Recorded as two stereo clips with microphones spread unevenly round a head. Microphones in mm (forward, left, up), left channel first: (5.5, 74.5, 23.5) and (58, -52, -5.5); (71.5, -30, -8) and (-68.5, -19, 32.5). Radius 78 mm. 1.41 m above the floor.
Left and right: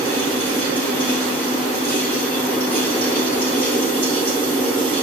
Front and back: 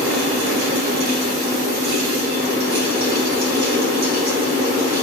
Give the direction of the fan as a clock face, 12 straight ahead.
5 o'clock.